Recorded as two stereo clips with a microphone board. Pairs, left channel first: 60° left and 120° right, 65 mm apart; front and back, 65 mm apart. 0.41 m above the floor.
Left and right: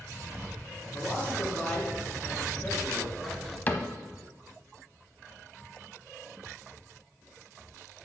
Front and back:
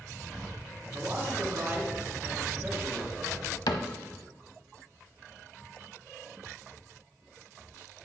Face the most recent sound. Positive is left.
turn(degrees=0)